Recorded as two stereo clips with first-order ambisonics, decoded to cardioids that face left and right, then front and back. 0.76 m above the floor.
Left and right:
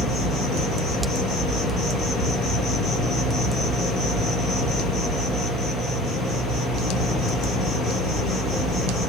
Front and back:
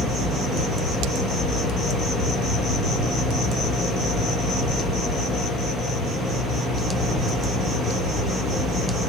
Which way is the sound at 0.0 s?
120° left.